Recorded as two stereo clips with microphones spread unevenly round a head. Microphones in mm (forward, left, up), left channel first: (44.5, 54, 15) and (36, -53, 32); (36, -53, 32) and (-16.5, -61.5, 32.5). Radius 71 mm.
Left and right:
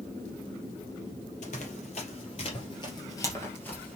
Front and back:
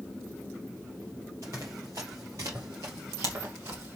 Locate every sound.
1.4 s running footsteps: 125° left, 3 m; by 4.0 s 175° left, 2.5 m